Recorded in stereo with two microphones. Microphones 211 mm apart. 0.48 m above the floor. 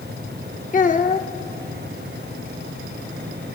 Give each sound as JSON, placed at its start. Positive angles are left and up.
{"t": 0.7, "sound": "a child speaking", "side_deg": 40, "distance_m": 0.7}